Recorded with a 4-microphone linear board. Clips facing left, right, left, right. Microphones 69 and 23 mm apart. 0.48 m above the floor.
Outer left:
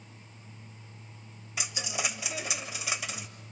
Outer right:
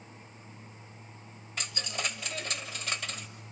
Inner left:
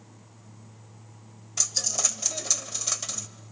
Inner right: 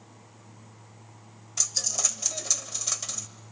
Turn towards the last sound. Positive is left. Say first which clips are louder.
# outer left 1 dB, inner left 1 dB
turn(degrees=10)  # may be behind; listen again after turning